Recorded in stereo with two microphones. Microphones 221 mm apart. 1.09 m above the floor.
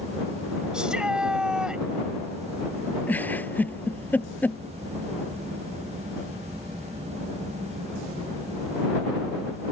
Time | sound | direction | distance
0.7 | a shout | 5° right (ahead or behind) | ?
3.1 | a giggle | 10° left (ahead or behind) | ?